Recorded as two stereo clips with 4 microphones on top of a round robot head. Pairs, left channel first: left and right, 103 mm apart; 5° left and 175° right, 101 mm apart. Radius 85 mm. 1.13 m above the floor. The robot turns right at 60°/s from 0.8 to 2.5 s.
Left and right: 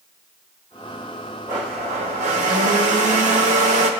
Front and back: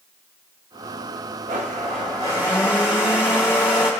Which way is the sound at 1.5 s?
155° right.